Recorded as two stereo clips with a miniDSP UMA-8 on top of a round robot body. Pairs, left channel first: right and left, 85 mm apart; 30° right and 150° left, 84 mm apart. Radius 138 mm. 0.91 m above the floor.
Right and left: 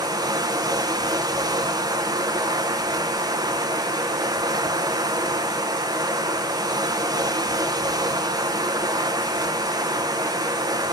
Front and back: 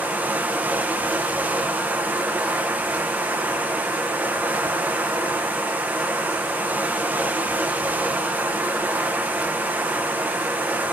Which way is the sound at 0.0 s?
85° left.